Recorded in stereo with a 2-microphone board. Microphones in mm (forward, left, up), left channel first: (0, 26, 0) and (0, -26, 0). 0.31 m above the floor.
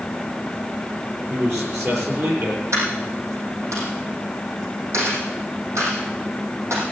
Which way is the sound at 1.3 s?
70° right (ahead or behind).